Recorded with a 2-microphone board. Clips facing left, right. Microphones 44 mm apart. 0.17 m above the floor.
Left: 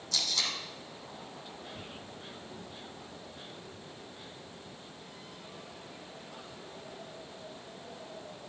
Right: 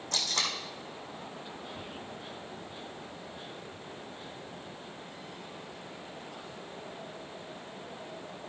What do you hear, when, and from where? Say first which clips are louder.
0.1 s tape being pulled: right 1 dB; 50° right (ahead or behind), 2.5 m